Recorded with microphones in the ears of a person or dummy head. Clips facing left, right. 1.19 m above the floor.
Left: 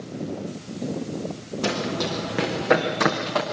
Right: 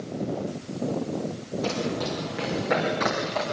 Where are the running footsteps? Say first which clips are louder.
Left 2 dB; 75° left (ahead or behind), 4 m.